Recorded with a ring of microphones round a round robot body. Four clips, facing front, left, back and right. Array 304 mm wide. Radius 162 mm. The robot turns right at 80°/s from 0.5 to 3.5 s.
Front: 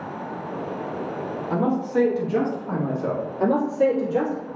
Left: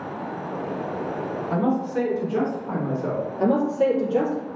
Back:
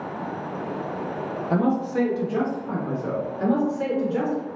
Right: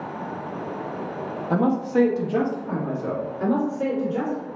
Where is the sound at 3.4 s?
45° left, 1.9 m; by 4.5 s 55° left, 1.9 m.